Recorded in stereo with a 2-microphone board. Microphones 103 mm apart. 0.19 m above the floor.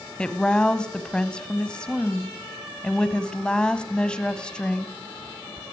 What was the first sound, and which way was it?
A woman speaking, 10° left (ahead or behind).